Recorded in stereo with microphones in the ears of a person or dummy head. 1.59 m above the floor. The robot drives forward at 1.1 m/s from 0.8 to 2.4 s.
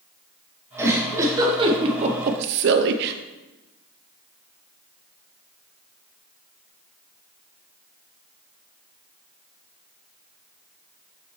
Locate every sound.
0.8 s a giggle: 15° right (ahead or behind), 2 m; by 3.1 s 60° right (ahead or behind), 0.6 m